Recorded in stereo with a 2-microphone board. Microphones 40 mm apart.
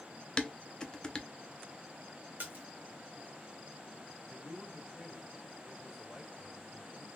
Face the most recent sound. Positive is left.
turn(degrees=-5)  # may be behind; listen again after turning